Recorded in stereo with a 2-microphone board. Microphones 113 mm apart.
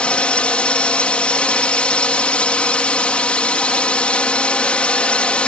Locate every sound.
0.0 s a drone: 10° left (ahead or behind)